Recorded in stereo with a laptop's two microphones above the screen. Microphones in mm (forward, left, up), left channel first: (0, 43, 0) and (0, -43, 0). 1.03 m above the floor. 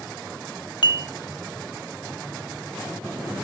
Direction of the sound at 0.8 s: 60° left (ahead or behind).